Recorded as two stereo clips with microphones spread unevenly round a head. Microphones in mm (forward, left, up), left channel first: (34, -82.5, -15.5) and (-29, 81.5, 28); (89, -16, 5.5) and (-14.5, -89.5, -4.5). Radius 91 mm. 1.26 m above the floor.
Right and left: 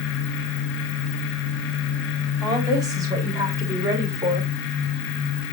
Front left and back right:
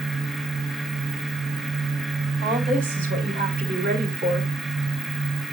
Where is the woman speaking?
175° right, 4 m.